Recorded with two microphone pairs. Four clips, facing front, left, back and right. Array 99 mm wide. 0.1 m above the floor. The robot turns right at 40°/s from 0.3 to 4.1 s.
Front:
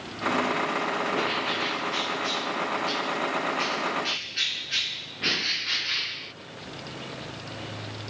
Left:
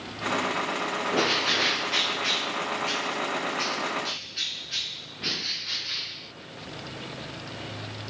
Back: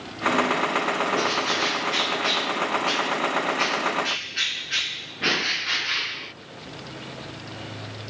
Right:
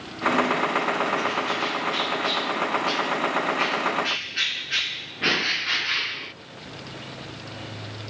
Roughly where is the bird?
Left.